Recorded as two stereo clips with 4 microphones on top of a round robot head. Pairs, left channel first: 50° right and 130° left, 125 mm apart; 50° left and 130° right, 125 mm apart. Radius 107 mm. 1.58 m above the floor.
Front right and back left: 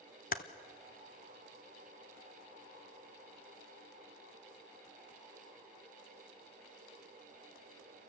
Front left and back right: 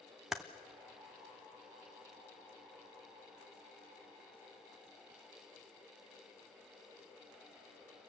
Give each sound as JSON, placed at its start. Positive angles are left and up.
{"t": 0.3, "sound": "typing on a keyboard", "azimuth_deg": -40, "distance_m": 0.5}